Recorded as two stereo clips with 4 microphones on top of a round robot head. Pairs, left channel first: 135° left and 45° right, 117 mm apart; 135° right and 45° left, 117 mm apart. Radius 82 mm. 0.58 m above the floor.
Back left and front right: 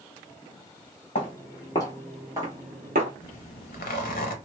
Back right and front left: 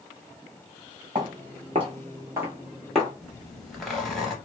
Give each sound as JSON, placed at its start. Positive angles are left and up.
{"t": 1.1, "sound": "footsteps", "azimuth_deg": 100, "distance_m": 1.1}
{"t": 3.2, "sound": "a zipper", "azimuth_deg": 135, "distance_m": 0.6}